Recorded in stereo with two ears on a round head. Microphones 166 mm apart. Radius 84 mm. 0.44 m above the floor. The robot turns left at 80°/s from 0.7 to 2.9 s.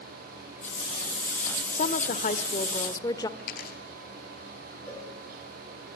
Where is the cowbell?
10° left (ahead or behind), 4.5 m.